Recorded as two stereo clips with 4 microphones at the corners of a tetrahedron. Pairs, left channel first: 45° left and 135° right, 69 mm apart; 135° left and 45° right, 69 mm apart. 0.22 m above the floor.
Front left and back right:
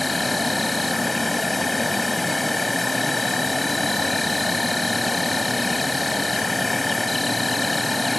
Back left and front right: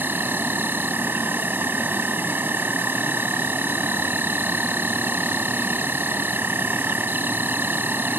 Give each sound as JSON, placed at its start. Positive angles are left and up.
{"t": 0.0, "sound": "an insect", "azimuth_deg": -45}